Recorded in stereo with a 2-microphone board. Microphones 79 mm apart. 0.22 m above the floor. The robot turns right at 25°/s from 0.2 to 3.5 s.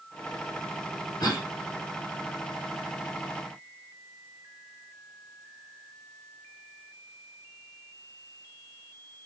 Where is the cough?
55° left (ahead or behind), 2.5 m; by 1.5 s 60° left (ahead or behind), 2.5 m.